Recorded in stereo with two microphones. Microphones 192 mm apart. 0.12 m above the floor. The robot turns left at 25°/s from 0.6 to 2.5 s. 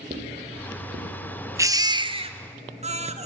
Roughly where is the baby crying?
Centre.